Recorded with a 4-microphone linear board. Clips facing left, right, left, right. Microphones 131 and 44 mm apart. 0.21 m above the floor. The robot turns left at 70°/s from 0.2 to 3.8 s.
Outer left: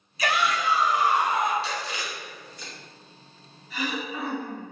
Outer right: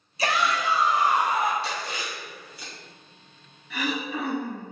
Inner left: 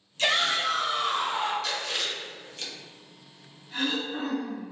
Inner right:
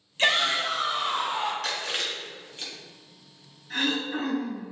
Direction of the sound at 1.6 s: 60° right (ahead or behind).